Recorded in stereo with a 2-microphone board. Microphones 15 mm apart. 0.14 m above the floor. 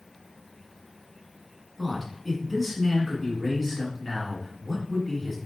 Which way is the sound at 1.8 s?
Centre (ahead or behind).